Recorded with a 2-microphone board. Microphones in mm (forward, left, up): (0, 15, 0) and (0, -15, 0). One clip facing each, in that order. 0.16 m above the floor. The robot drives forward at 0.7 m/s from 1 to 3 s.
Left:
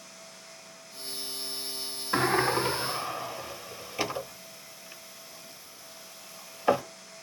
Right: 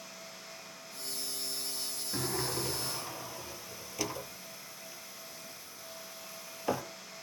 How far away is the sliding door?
About 0.5 m.